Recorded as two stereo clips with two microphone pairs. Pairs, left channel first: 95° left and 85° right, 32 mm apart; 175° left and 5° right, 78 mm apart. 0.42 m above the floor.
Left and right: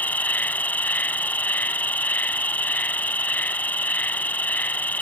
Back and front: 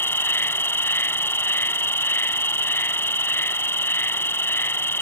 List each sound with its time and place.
0.0 s an insect: 120° left